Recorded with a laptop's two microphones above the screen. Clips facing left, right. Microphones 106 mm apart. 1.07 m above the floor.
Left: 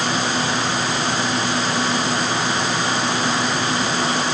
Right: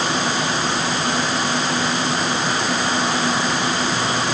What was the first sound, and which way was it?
Only background noise.